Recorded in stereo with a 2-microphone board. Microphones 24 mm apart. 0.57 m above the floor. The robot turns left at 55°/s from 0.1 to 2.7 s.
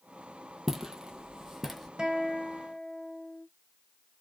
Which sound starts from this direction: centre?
Footsteps, at 0.7 s.